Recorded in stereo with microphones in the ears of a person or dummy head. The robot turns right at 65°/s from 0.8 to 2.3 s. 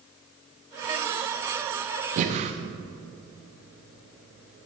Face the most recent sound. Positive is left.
turn(degrees=-40)  # may be behind; listen again after turning